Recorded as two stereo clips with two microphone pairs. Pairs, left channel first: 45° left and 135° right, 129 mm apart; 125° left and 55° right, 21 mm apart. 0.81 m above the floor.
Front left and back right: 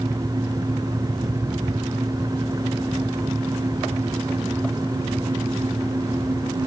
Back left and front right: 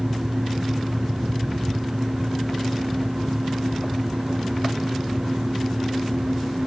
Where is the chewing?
I don't hear chewing.